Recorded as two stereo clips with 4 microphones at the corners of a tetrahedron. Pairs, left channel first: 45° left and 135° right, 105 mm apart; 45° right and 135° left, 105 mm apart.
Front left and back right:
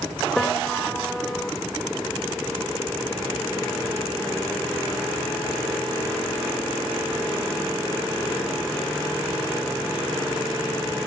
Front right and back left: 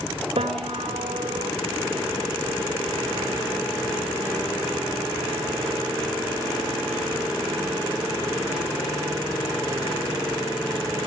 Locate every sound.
0.4 s a piano: 130° left, 2.0 m